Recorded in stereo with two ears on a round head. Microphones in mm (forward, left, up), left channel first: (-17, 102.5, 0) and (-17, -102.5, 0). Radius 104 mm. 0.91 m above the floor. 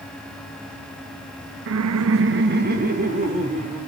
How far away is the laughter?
About 0.6 m.